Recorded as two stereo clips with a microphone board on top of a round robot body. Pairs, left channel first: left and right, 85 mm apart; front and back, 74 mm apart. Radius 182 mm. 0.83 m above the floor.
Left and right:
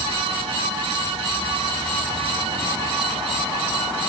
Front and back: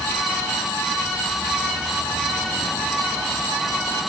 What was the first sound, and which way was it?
Only background noise.